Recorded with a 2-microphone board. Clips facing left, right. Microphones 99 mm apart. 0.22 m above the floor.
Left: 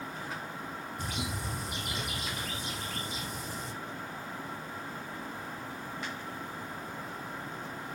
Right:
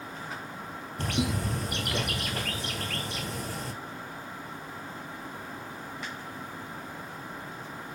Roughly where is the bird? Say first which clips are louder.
Right 10 dB; right.